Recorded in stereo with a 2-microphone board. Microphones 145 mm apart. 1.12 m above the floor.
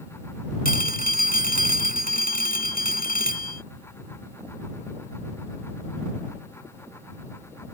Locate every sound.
0.7 s a phone ringing: 80° left